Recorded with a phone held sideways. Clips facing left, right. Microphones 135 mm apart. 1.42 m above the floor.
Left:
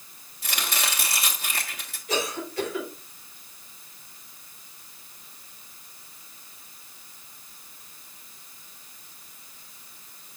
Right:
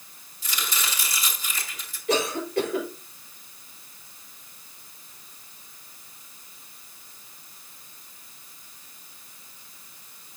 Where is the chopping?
75° left (ahead or behind), 1.6 m.